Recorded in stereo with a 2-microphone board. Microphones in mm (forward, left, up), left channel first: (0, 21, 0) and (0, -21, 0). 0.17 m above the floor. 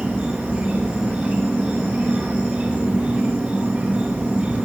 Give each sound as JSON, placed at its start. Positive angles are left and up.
{"t": 0.0, "sound": "an insect", "side_deg": -20, "distance_m": 2.5}